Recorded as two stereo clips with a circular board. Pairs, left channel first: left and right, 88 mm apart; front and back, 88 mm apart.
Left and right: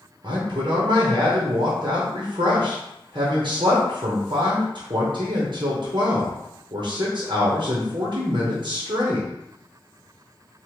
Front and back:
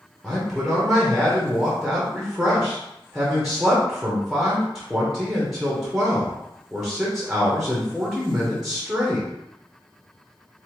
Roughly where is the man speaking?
Right.